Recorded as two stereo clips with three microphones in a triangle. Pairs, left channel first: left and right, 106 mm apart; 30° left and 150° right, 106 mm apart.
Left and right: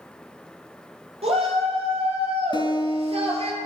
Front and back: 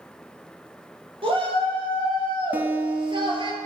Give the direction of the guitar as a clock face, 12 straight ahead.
7 o'clock.